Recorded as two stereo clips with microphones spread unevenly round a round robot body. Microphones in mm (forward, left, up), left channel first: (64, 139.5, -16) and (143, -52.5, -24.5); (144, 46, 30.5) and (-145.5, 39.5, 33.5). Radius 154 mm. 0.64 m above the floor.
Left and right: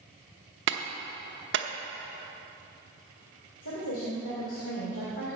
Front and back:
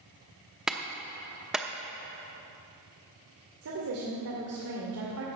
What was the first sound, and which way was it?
A clap, 90° right.